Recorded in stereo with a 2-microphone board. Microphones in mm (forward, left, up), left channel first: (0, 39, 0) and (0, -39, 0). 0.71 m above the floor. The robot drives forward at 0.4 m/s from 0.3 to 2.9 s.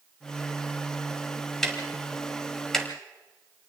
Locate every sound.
1.6 s ticking: 5° left (ahead or behind), 2.5 m